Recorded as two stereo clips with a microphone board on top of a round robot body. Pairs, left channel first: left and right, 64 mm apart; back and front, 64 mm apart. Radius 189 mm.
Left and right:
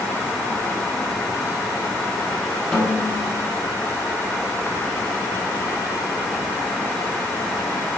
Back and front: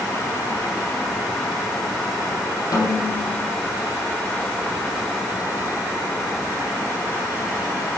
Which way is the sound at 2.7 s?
160° left.